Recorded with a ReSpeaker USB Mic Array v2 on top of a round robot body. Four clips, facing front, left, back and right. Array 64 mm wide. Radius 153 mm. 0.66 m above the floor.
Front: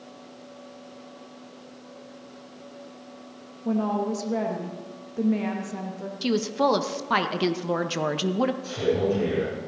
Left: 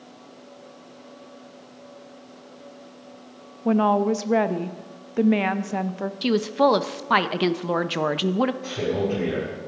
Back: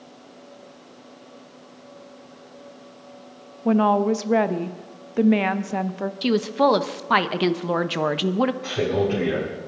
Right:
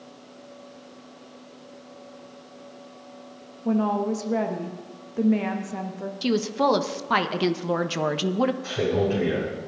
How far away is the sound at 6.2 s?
About 1.0 m.